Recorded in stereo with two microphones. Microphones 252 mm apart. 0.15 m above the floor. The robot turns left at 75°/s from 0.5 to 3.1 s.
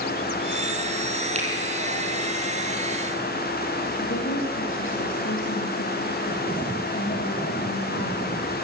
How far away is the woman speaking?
About 6 m.